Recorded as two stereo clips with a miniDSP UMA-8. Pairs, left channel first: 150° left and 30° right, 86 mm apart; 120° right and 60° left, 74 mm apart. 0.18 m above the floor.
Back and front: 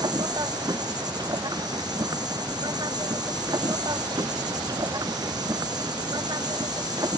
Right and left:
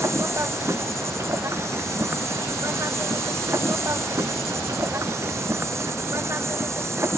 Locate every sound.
0.0 s an insect: 10° left